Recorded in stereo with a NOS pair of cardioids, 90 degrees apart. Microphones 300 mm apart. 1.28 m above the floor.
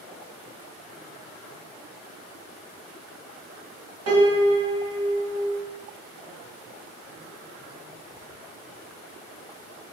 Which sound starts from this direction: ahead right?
A piano, at 4.1 s.